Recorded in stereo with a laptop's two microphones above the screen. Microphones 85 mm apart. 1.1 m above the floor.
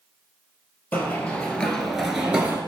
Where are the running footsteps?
20° left (ahead or behind), 1.6 m; by 2.6 s 15° right (ahead or behind), 1.2 m.